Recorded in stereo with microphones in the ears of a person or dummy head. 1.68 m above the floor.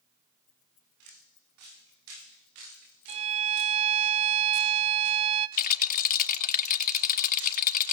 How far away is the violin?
About 1.2 m.